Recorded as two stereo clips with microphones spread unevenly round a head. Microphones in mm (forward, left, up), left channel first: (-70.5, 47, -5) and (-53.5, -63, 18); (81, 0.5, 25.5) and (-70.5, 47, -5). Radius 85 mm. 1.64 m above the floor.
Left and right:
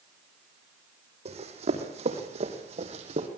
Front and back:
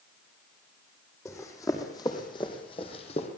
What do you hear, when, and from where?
1.2 s running footsteps: 90° right, 5 m; by 3.3 s 65° right, 4 m